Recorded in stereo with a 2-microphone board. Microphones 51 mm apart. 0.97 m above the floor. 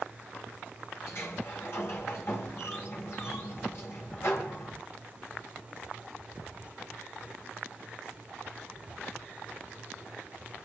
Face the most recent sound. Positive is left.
turn(degrees=60)  # may be behind; listen again after turning